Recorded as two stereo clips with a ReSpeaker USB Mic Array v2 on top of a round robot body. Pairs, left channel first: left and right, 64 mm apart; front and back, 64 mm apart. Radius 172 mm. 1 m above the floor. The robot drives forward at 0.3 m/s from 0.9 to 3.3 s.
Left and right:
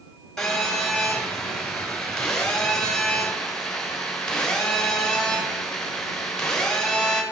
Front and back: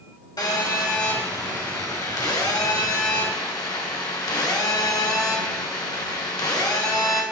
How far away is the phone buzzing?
About 2.5 m.